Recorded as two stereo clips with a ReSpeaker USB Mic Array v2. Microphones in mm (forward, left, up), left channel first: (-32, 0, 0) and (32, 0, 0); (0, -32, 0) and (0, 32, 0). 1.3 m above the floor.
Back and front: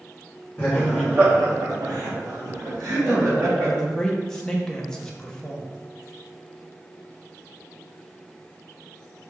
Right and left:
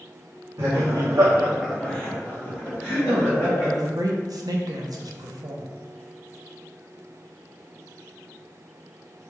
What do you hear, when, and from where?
0.6 s laughter: 115° left, 1.1 m; by 3.7 s 35° right, 3.5 m
3.1 s a man speaking: 100° left, 0.7 m